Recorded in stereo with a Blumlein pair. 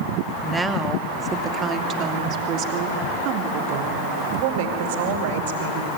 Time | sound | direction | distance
0.4 | a woman speaking | 5° right | 2.5 m